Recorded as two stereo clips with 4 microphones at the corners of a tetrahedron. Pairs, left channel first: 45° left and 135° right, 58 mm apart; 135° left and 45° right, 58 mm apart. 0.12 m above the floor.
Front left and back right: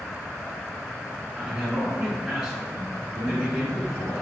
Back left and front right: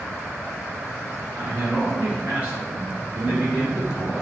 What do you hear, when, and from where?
1.3 s a man speaking: 70° right, 1.7 m